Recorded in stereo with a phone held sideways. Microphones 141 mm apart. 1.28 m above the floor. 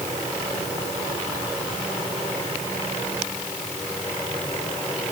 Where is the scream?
No scream in this recording.